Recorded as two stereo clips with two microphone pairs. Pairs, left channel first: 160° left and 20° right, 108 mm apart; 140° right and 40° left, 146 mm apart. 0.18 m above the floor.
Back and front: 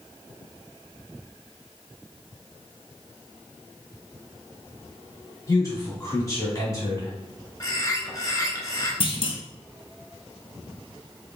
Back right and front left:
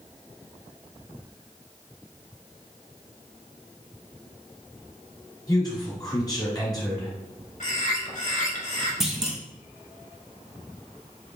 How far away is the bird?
About 1.4 m.